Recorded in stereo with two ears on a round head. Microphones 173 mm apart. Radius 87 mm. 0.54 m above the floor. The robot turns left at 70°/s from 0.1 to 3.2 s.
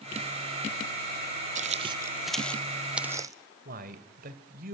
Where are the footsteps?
40° right (ahead or behind), 0.7 m; by 3.3 s 15° right (ahead or behind), 0.9 m.